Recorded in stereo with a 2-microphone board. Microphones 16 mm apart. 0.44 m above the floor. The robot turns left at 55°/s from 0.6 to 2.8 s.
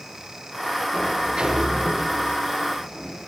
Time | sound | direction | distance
0.9 | a sliding door | 90° right | 6 m